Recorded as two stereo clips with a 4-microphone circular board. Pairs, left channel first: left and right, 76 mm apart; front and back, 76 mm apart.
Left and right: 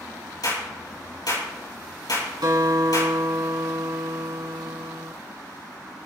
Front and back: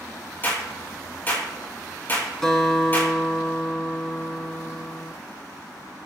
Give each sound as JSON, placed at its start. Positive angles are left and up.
{"t": 0.4, "sound": "a clap", "azimuth_deg": 60, "distance_m": 6.5}
{"t": 2.4, "sound": "a guitar", "azimuth_deg": -80, "distance_m": 2.5}